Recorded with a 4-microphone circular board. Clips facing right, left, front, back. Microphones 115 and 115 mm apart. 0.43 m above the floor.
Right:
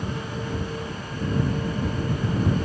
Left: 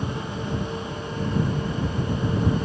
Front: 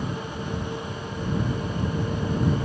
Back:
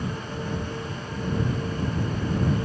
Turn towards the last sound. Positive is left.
No sound to turn to.